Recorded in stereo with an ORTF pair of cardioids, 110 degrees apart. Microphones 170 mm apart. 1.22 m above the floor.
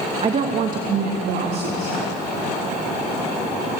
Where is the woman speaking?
35° right, 1.6 m; by 2.2 s 80° right, 3 m.